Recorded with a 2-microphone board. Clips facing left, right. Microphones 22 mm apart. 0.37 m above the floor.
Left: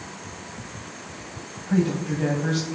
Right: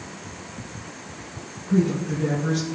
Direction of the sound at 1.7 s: 65° left (ahead or behind).